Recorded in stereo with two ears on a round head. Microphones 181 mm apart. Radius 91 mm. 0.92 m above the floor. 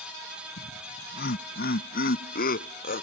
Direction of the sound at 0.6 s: 55° left (ahead or behind).